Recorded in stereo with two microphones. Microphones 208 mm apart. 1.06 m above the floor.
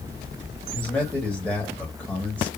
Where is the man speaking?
5° left (ahead or behind), 1.7 m.